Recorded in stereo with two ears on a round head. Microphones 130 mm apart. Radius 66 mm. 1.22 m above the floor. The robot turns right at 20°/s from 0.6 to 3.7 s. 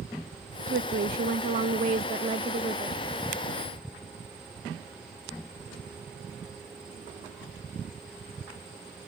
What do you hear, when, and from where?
0.7 s a woman speaking: 70° right; by 3.0 s 25° right